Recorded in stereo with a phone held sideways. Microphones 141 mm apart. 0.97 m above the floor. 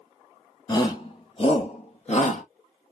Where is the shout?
30° left (ahead or behind), 1.6 m; by 2.4 s 55° left (ahead or behind), 1.6 m.